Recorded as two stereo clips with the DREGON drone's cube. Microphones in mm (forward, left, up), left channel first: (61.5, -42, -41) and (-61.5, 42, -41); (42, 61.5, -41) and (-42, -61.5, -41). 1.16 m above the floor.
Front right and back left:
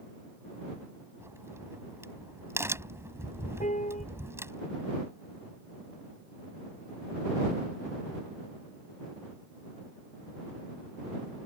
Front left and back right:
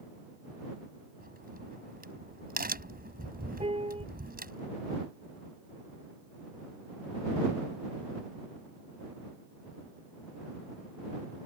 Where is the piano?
70° right.